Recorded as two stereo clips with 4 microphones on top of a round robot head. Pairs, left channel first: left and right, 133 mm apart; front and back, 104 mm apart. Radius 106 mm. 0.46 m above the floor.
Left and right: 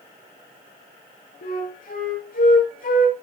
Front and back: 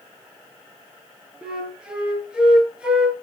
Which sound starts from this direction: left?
A flute, at 1.4 s.